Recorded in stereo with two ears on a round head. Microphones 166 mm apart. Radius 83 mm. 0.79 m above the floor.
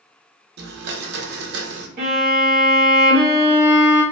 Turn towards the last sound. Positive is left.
turn(degrees=-45)  # may be behind; listen again after turning